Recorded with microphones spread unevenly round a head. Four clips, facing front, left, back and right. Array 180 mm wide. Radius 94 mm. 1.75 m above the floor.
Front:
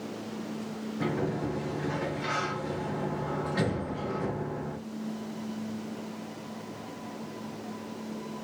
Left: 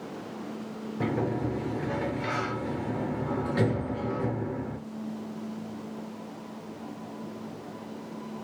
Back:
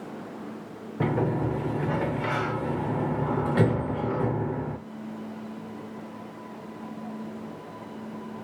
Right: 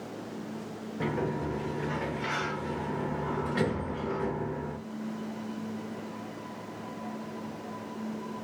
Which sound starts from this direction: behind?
A sliding door, at 1.0 s.